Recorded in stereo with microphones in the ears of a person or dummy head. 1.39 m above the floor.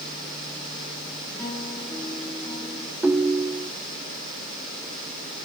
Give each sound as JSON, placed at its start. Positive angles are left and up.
{"t": 1.3, "sound": "a guitar", "side_deg": 5, "distance_m": 8.0}
{"t": 3.0, "sound": "a ringtone", "side_deg": -10, "distance_m": 0.5}